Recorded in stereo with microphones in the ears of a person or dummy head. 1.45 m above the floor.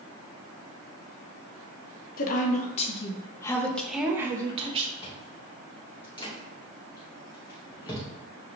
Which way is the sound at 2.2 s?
50° left (ahead or behind).